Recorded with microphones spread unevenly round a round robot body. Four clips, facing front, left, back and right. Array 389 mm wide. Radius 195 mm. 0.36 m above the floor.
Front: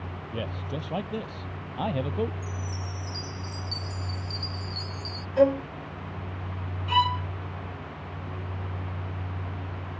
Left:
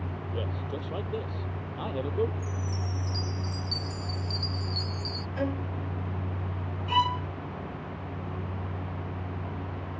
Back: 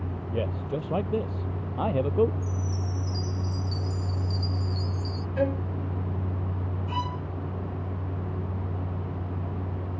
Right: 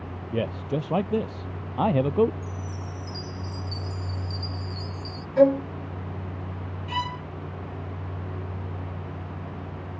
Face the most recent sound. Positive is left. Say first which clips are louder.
# left 5 dB, front 9 dB
turn(degrees=35)